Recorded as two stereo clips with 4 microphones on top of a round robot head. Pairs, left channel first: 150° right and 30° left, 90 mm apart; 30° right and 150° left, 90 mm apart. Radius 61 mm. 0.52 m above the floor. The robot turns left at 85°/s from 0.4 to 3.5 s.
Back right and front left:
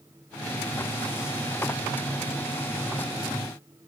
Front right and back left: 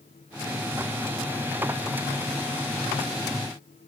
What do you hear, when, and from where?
Only background noise.